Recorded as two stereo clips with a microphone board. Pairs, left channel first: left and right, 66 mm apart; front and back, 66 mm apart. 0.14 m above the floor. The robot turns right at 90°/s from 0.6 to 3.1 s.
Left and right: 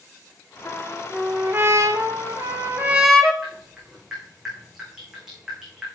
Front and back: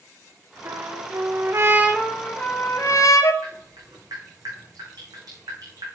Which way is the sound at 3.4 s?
170° right.